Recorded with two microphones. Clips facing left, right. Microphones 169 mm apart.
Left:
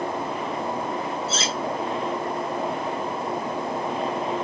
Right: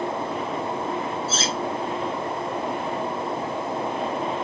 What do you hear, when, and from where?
1.3 s cutlery clinking: centre (ahead or behind), 2.5 m